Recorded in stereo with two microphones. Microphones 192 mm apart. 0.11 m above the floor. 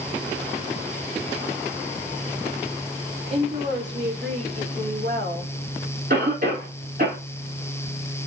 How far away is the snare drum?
No snare drum in this recording.